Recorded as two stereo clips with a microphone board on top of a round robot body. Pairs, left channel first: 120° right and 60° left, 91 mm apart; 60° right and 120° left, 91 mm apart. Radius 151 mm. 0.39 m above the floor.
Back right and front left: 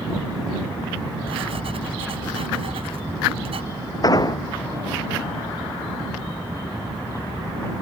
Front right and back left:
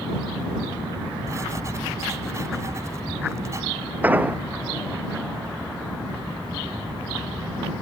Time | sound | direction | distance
1.3 | writing | 65° left | ?
4.0 | an explosion | 165° right | ?